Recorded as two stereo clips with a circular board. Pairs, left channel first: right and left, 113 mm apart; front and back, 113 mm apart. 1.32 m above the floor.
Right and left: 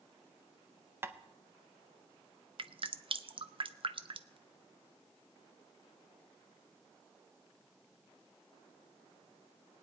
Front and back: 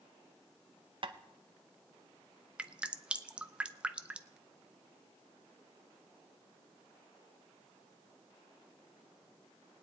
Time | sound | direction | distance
1.0 | tapping | 155° left | 0.7 m
2.6 | dripping | 105° left | 0.5 m